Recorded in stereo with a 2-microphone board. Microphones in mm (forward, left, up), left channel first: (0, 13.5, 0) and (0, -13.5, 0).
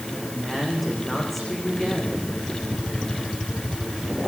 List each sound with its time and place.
0.1 s a woman speaking: 5° left (ahead or behind), 8 m; by 2.3 s 10° left (ahead or behind), 9.5 m